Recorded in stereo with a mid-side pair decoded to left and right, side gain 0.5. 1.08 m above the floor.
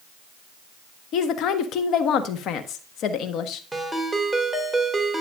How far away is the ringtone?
About 2.5 m.